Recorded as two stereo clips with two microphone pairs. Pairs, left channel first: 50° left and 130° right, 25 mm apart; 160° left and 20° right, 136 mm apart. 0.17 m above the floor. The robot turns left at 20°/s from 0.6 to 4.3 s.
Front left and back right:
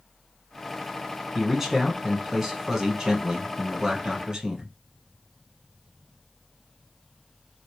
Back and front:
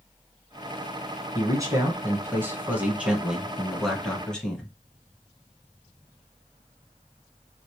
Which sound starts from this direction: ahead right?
A man speaking, at 1.4 s.